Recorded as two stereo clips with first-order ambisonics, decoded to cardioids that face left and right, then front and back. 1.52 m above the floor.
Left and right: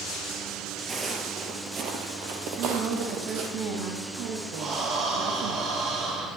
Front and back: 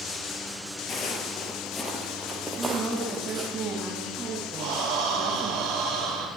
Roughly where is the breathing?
Behind right.